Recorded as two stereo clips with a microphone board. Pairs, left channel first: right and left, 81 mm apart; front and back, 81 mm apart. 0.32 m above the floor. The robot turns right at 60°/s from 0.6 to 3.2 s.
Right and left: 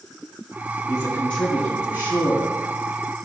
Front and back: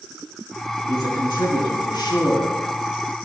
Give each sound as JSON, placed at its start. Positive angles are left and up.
{"t": 0.9, "sound": "a man speaking", "azimuth_deg": -45, "distance_m": 3.0}